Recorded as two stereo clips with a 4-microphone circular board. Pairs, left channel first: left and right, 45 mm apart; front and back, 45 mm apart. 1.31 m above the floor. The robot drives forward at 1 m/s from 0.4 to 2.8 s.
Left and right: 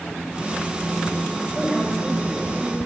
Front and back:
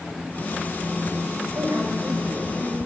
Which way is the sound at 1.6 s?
175° right.